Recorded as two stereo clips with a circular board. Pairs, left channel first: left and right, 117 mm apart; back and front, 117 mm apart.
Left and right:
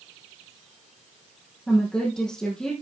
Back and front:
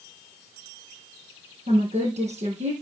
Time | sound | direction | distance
1.7 | a woman speaking | 5° left | 4.5 m